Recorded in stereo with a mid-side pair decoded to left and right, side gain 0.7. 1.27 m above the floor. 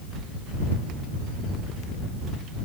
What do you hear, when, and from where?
Only background noise.